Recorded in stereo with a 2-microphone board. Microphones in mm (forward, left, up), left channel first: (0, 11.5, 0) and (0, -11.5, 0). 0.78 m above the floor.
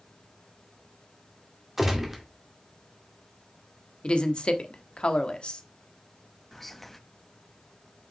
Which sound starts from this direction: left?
A woman speaking, at 4.0 s.